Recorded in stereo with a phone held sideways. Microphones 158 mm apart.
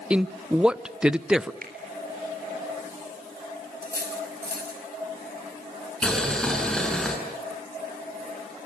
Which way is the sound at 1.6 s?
70° right (ahead or behind).